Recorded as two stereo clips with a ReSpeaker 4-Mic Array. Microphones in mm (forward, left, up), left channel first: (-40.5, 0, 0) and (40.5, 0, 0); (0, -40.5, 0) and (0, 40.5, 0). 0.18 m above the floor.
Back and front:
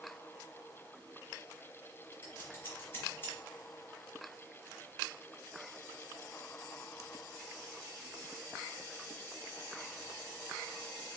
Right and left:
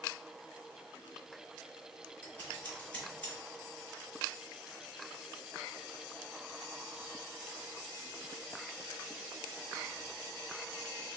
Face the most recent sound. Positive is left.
turn(degrees=-145)